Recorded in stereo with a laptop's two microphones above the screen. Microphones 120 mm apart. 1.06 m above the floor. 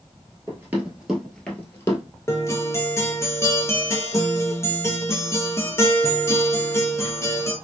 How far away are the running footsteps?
About 1.1 m.